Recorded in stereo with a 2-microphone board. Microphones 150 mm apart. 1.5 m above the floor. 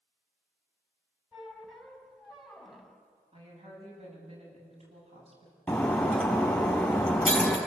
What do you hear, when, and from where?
1.3 s a squeak: centre (ahead or behind), 3 m
3.3 s a woman speaking: 40° right (ahead or behind), 9 m
5.7 s breaking glass: 5° left (ahead or behind), 4 m